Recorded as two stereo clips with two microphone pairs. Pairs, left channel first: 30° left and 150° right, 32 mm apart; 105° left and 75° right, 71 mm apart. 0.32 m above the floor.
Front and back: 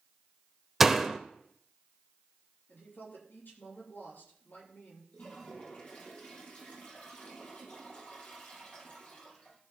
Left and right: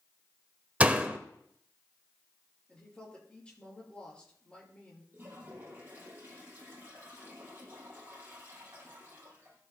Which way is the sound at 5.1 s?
15° right.